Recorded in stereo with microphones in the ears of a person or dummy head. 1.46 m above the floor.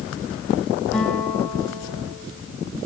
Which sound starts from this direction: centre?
A guitar, at 0.9 s.